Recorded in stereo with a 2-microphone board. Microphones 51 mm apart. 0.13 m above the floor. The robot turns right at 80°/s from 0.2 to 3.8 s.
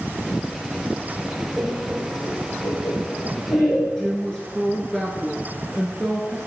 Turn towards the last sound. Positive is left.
turn(degrees=10)  # may be behind; listen again after turning